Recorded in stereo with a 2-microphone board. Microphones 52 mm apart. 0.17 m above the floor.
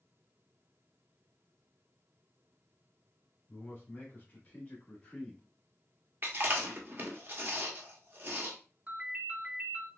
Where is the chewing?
40° right (ahead or behind), 1.1 m.